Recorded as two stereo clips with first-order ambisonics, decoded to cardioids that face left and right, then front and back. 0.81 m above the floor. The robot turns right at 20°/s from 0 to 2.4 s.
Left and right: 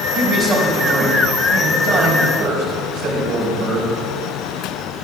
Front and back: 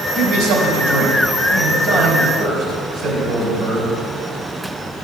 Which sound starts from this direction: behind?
A man speaking, at 0.1 s.